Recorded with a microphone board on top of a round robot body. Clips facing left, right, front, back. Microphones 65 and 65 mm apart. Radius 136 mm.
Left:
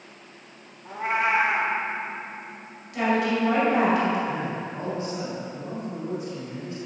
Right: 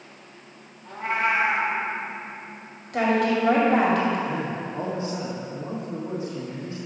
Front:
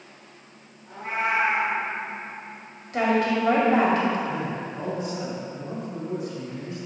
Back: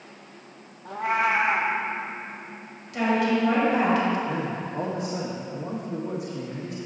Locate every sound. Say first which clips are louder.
0.8 s a cat meowing: even, back 3 dB; 165° left, 1.0 m
2.9 s a woman speaking: right 2 dB, front 1 dB; 50° right, 2.5 m
4.3 s a man speaking: right 1 dB, even; 155° right, 1.7 m